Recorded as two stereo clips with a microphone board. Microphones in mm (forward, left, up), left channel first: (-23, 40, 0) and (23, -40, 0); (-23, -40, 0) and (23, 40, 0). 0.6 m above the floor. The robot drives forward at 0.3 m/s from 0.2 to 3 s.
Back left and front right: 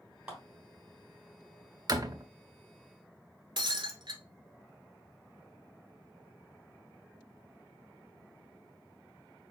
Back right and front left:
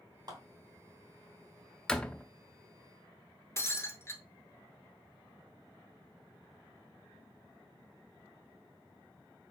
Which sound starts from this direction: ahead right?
A door slam, at 1.9 s.